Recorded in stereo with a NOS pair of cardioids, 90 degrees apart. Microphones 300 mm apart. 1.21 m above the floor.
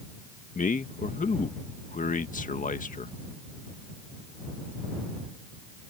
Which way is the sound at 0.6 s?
25° left.